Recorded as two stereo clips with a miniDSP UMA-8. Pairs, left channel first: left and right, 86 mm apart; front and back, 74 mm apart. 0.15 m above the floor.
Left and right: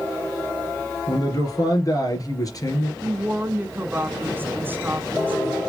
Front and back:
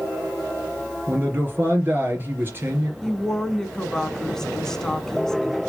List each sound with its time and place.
1.1 s a man speaking: 125° left, 3 m
3.0 s a woman speaking: 75° right, 1.5 m